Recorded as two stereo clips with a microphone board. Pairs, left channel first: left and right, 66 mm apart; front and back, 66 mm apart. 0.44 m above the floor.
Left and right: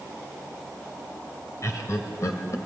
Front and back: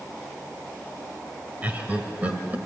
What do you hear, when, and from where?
1.6 s laughter: 120° left, 1.8 m